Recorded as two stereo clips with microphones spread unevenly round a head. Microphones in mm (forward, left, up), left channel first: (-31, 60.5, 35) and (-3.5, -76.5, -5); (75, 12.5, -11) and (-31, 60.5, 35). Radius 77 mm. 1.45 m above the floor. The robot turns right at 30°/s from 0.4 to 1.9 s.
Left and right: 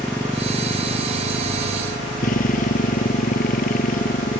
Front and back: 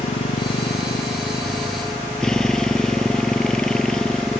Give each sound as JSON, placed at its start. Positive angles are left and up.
{"t": 0.0, "sound": "a motorcycle", "azimuth_deg": 20}